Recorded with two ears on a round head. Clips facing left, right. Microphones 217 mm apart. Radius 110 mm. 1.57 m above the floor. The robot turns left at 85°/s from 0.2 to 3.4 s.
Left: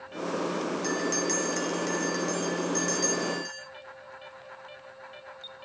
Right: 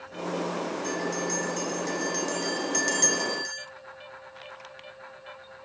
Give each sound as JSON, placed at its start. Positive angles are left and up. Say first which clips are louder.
{"t": 0.8, "sound": "a bell", "louder": "left 1 dB", "azimuth_deg": 105, "distance_m": 2.5}